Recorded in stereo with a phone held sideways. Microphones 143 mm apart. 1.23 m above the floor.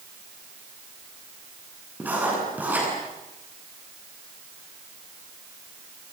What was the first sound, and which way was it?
Writing, 10° right (ahead or behind).